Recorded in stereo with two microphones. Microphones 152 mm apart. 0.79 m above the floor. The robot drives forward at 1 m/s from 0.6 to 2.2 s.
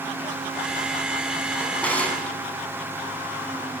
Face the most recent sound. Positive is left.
turn(degrees=10)  # may be behind; listen again after turning